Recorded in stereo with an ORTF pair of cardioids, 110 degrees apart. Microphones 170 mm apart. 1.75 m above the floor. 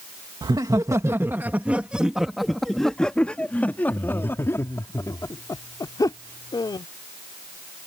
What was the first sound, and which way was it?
Laughter, 25° right.